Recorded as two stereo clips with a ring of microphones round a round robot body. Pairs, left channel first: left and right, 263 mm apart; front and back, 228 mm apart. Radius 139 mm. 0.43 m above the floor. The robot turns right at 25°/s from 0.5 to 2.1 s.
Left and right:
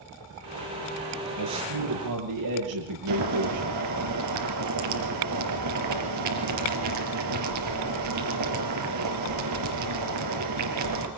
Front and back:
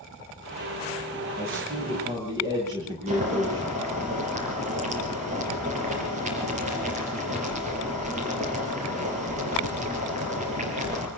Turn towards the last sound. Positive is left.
turn(degrees=-115)